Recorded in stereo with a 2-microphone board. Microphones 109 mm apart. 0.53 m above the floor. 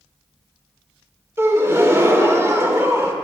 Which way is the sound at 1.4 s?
20° right (ahead or behind).